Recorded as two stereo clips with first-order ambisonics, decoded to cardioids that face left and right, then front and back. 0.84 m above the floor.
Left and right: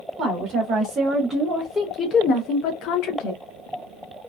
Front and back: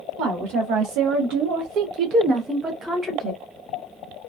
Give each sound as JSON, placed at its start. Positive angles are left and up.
{"t": 0.2, "sound": "a woman speaking", "azimuth_deg": -140, "distance_m": 1.2}